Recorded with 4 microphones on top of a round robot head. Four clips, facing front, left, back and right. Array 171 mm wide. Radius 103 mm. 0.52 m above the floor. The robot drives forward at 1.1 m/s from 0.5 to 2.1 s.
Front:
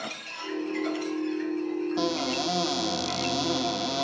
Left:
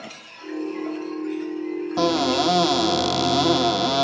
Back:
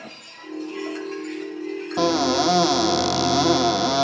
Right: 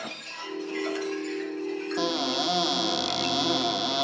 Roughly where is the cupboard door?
Behind left.